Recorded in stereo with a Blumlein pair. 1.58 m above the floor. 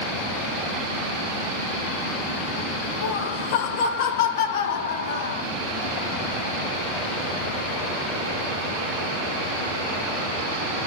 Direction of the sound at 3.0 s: 50° left.